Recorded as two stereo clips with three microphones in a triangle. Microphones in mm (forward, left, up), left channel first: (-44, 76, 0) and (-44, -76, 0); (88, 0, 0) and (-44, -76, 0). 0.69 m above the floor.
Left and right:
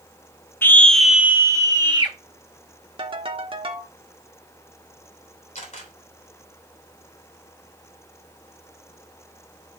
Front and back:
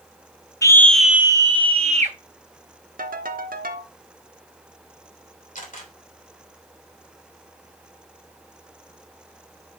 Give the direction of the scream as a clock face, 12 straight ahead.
11 o'clock.